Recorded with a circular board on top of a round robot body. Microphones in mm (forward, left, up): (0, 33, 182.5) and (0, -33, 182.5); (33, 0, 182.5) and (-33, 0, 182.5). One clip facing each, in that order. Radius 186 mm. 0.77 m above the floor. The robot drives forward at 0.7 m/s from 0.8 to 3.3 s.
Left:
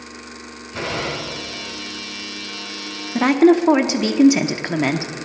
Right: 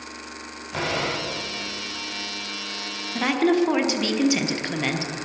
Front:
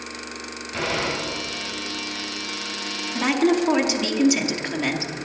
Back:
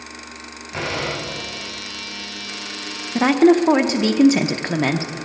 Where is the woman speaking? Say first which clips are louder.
Left 7 dB, back 6 dB; 140° left, 0.7 m; by 5.1 s 150° left, 0.8 m.